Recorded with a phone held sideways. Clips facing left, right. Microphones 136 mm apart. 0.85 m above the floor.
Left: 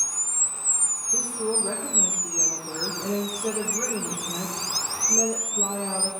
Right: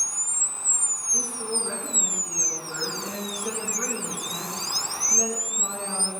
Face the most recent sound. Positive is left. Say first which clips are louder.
# left 4 dB
turn(degrees=50)  # may be behind; listen again after turning